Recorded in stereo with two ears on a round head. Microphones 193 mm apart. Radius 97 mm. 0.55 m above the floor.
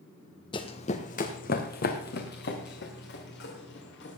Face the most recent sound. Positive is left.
turn(degrees=55)  # may be behind; listen again after turning